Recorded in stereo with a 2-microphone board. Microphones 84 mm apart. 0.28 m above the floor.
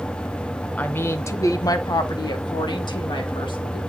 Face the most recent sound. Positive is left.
turn(degrees=70)  # may be behind; listen again after turning